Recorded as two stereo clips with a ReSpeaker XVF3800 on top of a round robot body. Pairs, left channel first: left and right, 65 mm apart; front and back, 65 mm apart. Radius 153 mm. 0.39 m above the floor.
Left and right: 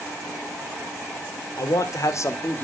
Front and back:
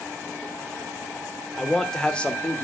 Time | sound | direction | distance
1.6 | a man speaking | 85° left | 1.8 m